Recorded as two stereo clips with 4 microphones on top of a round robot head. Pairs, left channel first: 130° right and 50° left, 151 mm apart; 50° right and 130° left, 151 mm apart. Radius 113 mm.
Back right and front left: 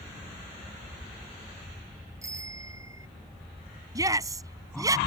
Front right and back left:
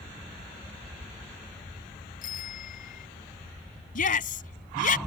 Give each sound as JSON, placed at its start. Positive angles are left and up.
{"t": 2.2, "sound": "a bicycle bell", "azimuth_deg": -20}
{"t": 4.0, "sound": "a shout", "azimuth_deg": -15}